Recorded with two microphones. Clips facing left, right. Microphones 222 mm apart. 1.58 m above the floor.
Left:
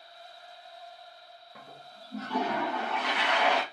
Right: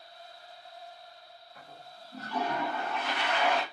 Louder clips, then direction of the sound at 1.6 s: Left 1 dB; 75° left (ahead or behind).